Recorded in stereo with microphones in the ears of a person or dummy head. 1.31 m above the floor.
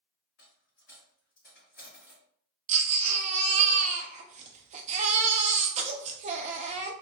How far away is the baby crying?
About 0.5 m.